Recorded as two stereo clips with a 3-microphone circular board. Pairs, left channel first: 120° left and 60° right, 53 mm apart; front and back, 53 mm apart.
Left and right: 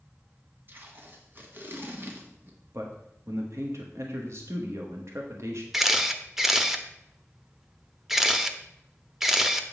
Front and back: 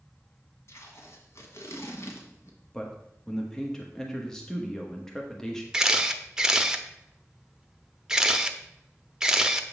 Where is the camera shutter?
130° right, 0.6 m.